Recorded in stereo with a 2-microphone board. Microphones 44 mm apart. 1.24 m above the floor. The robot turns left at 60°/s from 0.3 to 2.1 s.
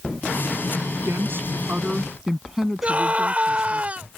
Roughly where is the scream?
Right.